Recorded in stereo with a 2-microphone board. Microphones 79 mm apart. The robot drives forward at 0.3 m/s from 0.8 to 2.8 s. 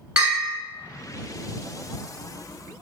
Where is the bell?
15° right (ahead or behind), 1.1 m.